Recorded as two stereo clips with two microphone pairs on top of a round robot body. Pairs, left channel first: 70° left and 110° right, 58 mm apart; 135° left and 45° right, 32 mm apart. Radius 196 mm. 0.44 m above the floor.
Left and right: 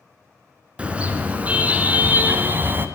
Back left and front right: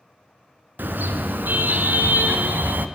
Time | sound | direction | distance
0.8 | a car horn | 40° right | 3.5 m